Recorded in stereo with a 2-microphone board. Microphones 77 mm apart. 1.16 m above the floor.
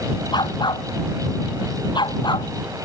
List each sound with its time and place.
0.3 s a dog barking: 70° left (ahead or behind)